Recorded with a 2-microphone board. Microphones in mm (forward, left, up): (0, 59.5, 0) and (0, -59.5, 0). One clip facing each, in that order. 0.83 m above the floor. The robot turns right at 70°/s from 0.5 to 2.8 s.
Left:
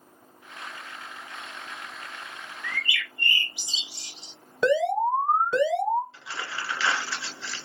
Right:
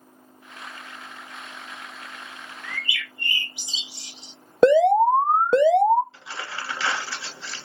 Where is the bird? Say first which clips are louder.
Left 1 dB; 30° right (ahead or behind), 1.2 m; by 4.3 s 20° right (ahead or behind), 1.2 m.